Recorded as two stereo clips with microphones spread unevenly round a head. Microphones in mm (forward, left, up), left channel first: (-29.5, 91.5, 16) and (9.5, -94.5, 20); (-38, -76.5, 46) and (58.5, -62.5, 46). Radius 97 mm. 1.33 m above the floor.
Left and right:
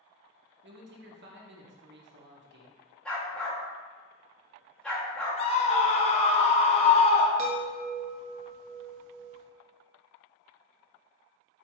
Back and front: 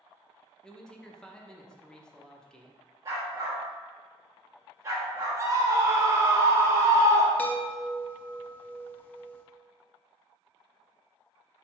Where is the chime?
95° right, 0.7 m.